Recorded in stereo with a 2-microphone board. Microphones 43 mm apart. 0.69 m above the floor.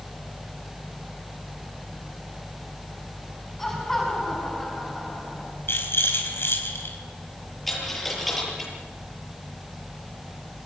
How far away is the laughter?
About 5.5 m.